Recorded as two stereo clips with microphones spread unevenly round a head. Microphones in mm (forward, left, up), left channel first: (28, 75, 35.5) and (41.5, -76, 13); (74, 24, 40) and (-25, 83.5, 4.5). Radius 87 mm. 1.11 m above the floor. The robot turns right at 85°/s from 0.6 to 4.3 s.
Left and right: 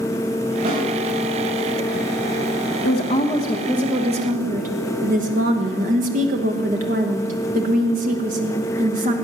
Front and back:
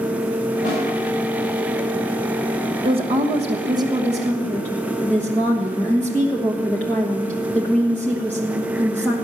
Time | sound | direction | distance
0.7 | a snare drum | 60° right | 8 m
2.8 | a woman speaking | 120° left | 1.1 m